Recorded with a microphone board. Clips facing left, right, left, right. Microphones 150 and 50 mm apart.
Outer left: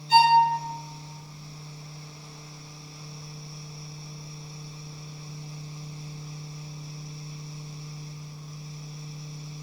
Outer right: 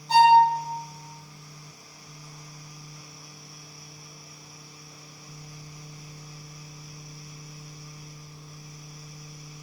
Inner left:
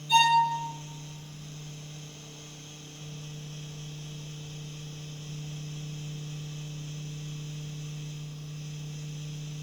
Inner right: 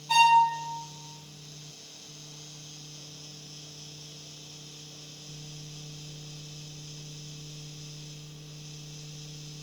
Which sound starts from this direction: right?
A violin, at 0.1 s.